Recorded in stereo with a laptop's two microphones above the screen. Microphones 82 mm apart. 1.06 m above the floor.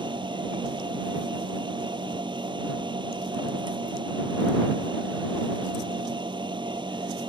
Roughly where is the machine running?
Right.